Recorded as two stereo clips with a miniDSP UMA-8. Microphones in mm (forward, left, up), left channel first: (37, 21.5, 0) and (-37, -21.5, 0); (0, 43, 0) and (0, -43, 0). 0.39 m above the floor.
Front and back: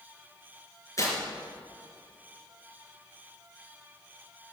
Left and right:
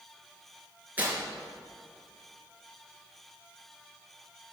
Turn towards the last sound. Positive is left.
turn(degrees=-20)